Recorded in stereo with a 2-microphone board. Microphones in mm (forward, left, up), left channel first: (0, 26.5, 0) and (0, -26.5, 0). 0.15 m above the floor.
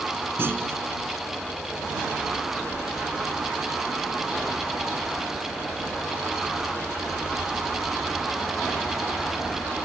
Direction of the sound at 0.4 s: 50° right (ahead or behind).